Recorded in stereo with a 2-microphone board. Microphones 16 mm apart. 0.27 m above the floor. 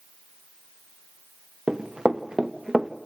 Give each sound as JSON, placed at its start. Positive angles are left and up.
{"t": 1.7, "sound": "running footsteps", "side_deg": -80, "distance_m": 1.7}